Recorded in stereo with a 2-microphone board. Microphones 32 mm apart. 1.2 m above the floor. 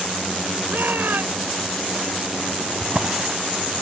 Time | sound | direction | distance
0.7 | a shout | 85° right | ?
2.8 | a drawer | 45° right (ahead or behind) | ?